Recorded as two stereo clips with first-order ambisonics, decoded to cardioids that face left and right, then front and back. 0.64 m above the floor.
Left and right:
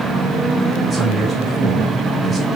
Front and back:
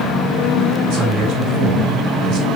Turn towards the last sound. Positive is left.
turn(degrees=180)